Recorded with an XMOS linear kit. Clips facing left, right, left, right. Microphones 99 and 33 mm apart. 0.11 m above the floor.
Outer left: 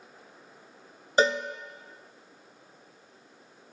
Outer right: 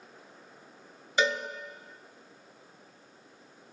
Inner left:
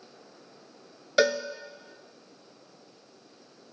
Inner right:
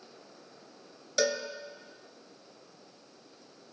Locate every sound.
1.2 s a cowbell: 35° left (ahead or behind), 0.7 m